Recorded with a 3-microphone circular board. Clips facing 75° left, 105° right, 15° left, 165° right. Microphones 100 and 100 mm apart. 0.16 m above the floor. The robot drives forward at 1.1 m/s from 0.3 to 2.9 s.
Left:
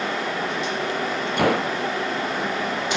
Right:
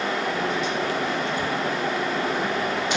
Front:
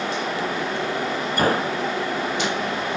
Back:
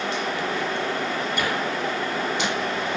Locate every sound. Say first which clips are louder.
1.4 s a gunshot: left 5 dB, front 8 dB; 65° left